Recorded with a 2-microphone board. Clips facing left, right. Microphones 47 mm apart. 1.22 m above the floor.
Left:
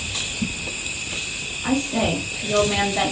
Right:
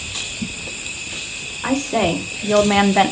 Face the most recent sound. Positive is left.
turn(degrees=-50)  # may be behind; listen again after turning